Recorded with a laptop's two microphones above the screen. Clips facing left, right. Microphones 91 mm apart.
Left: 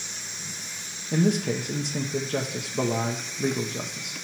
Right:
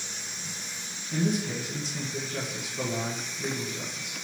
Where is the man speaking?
70° left (ahead or behind), 0.8 m.